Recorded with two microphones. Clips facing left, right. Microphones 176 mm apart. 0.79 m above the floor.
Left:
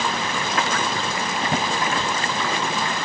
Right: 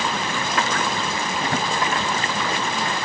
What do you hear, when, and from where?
1.4 s a drawer: 20° left (ahead or behind), 1.2 m